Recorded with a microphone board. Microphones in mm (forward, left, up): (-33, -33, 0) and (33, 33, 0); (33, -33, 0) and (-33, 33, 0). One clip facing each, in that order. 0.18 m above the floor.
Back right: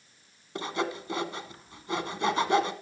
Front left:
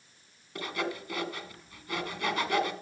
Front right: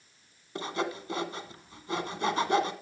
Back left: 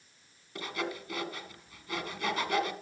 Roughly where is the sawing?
Right.